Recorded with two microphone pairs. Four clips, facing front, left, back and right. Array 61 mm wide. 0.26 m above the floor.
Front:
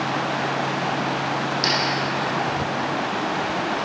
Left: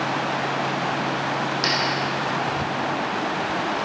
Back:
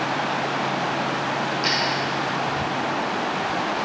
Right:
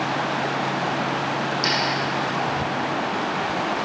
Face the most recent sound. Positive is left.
turn(degrees=70)